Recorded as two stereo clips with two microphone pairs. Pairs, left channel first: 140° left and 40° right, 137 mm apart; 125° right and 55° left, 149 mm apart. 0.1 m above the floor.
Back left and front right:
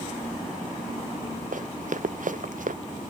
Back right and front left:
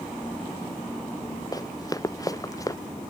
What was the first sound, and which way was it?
Running footsteps, 60° right.